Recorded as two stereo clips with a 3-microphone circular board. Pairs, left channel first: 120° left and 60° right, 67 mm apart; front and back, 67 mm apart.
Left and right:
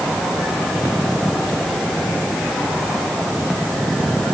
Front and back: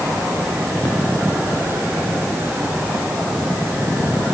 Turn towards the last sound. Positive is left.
No sound to turn to.